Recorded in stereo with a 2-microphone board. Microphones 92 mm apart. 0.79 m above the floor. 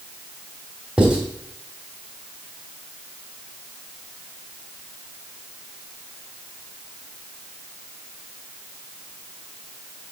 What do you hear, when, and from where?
1.0 s writing: 10° right (ahead or behind), 3 m